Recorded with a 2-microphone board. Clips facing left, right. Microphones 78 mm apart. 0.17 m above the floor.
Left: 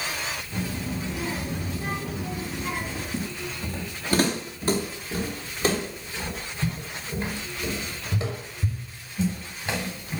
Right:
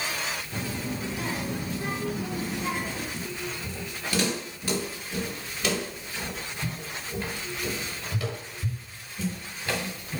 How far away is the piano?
No piano in this recording.